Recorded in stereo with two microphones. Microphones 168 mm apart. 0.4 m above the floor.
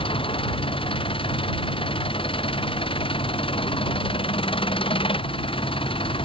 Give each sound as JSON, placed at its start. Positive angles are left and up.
{"t": 0.0, "sound": "an engine running", "side_deg": 30}